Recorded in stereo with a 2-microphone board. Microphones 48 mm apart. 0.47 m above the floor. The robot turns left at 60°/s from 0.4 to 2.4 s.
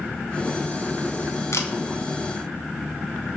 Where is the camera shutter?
70° left (ahead or behind), 1.8 m; by 1.7 s 75° left (ahead or behind), 1.8 m.